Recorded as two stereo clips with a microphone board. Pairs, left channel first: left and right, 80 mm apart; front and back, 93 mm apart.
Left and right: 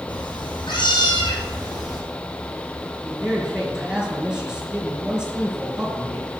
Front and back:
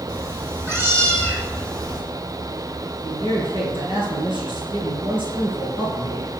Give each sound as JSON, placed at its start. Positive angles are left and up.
{"t": 0.1, "sound": "a cat meowing", "azimuth_deg": 105, "distance_m": 3.0}
{"t": 3.0, "sound": "a man speaking", "azimuth_deg": -170, "distance_m": 4.0}